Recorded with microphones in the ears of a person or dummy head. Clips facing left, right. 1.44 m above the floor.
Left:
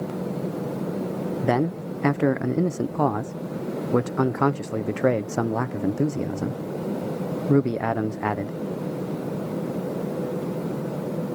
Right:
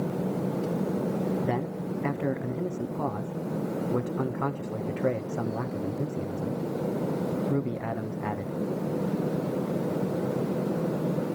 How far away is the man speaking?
About 0.7 m.